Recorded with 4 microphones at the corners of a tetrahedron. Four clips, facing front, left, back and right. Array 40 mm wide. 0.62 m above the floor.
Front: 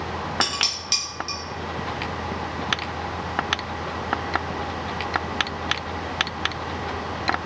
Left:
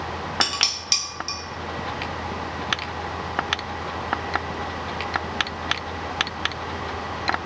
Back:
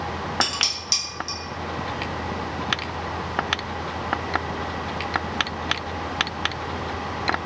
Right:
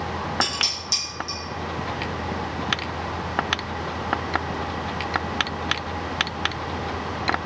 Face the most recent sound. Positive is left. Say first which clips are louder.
# left 4 dB, even
turn(degrees=65)